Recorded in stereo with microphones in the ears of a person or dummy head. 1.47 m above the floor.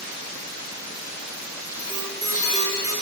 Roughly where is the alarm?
Centre.